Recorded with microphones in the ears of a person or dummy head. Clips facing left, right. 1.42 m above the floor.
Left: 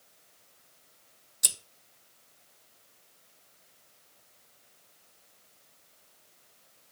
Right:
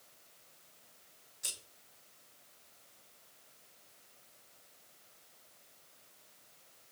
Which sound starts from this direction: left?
Scissors, at 1.4 s.